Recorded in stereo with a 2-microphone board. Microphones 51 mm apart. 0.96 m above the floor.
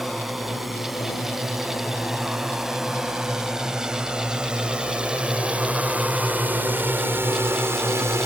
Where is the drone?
Centre (ahead or behind); by 8.3 s 65° right (ahead or behind).